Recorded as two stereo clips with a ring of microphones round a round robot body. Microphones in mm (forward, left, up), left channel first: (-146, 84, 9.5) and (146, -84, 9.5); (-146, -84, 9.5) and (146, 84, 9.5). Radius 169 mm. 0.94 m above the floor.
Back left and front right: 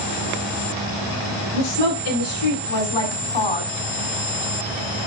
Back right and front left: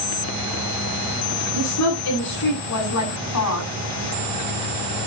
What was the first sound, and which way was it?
A woman speaking, 165° left.